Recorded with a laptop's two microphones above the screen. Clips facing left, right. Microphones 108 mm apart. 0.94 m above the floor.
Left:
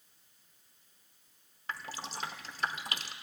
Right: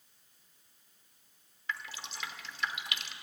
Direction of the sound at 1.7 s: 40° left (ahead or behind).